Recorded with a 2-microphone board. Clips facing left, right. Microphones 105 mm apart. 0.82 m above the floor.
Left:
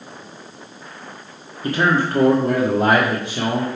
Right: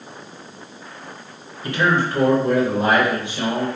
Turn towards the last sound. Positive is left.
turn(degrees=75)  # may be behind; listen again after turning